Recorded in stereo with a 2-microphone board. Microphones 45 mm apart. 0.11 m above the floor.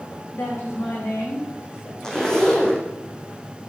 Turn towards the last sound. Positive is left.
turn(degrees=15)  # may be behind; listen again after turning